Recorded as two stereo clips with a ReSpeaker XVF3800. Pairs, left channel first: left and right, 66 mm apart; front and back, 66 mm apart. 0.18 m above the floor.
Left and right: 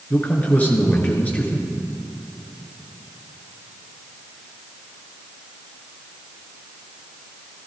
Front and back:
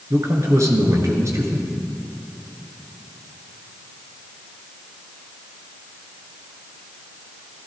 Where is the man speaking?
150° left, 2.5 m.